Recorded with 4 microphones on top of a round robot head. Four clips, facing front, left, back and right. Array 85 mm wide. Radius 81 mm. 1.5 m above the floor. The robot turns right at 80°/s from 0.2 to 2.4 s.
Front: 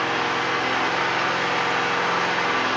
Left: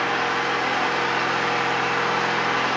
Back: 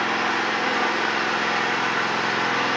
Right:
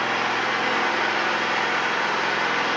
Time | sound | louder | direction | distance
0.0 | an engine running | left 1 dB, even | 115° right | 1.3 m